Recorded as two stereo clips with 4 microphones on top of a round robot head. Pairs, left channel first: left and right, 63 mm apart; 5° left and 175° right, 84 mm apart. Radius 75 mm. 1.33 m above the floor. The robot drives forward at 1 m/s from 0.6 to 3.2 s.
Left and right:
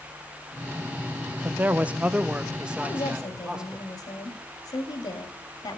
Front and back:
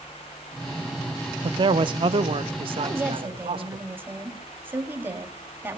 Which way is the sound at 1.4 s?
150° right.